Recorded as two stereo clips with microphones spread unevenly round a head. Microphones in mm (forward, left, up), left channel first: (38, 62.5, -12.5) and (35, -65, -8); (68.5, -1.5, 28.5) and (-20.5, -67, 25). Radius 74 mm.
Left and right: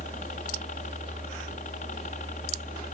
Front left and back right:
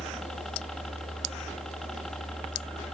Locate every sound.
0.0 s a helicopter: 125° left